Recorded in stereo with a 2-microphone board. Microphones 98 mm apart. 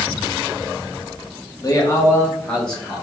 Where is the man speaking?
40° left (ahead or behind), 1.0 m; by 3.0 s centre (ahead or behind), 1.4 m.